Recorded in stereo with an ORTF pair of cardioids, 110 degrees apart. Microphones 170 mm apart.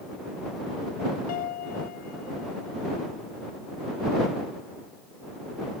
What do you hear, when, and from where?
1.3 s a piano: 70° left